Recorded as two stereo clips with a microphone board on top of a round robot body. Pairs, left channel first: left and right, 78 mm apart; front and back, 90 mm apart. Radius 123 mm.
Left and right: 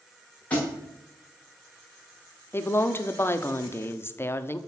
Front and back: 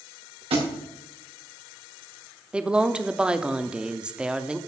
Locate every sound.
0.5 s a thud: 165° left, 5 m
2.5 s a woman speaking: 110° left, 1.0 m